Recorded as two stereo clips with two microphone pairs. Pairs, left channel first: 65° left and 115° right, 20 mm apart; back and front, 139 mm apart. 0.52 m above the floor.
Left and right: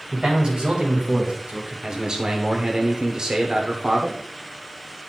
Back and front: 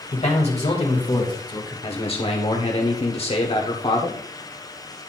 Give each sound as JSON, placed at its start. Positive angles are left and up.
{"t": 0.1, "sound": "a man speaking", "azimuth_deg": -155, "distance_m": 2.5}
{"t": 1.8, "sound": "a man speaking", "azimuth_deg": -155, "distance_m": 1.2}